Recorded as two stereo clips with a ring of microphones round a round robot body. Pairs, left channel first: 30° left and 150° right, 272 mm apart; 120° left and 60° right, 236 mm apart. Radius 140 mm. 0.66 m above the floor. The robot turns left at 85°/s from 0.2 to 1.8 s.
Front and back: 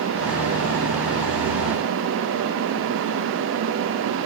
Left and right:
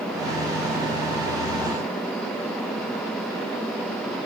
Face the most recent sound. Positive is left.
No sound to turn to.